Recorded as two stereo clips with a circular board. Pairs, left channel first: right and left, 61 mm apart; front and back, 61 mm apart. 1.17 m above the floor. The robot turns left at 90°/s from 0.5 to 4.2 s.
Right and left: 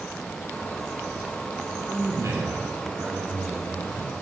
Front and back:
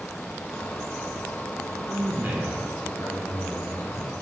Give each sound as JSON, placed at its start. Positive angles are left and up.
{"t": 1.8, "sound": "a man speaking", "azimuth_deg": 155, "distance_m": 3.0}